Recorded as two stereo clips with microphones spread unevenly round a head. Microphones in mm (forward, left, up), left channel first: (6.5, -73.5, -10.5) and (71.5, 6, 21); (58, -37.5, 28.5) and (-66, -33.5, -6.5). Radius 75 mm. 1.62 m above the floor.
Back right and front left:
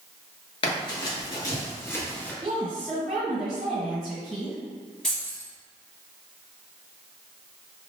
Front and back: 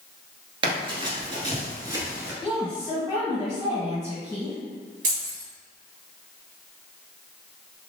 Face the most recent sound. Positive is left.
turn(degrees=135)